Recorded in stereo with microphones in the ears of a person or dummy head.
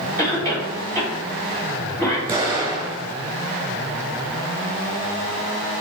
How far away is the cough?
About 3 m.